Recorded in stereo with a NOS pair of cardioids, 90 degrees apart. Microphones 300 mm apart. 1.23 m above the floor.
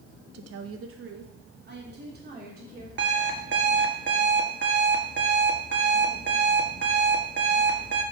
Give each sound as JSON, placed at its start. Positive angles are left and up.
{"t": 0.3, "sound": "a woman speaking", "azimuth_deg": -60, "distance_m": 0.8}
{"t": 3.0, "sound": "an alarm clock", "azimuth_deg": -40, "distance_m": 1.3}